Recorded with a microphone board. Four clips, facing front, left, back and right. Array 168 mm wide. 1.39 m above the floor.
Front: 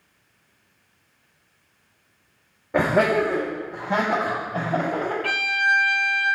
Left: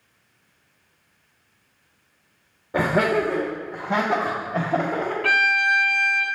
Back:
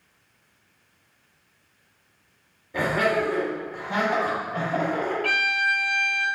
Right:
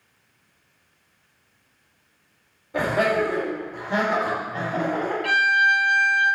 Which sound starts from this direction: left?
A violin, at 5.2 s.